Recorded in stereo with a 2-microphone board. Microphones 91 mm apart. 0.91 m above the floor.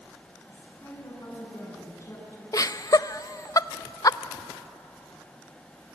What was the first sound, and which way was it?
A woman speaking, 35° left (ahead or behind).